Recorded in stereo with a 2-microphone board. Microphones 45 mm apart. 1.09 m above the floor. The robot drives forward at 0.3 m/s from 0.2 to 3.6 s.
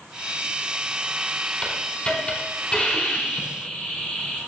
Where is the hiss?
25° left (ahead or behind), 4 m; by 4.4 s 20° left (ahead or behind), 4.5 m.